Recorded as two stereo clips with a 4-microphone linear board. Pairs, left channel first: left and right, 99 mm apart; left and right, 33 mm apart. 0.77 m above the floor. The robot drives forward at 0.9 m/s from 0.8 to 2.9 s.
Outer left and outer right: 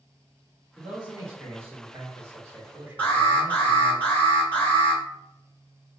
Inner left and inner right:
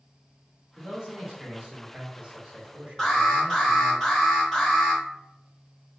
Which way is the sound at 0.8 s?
20° right (ahead or behind).